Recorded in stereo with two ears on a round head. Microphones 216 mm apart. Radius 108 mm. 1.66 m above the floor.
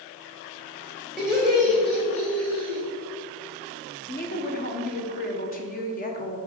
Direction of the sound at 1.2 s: 5° left (ahead or behind).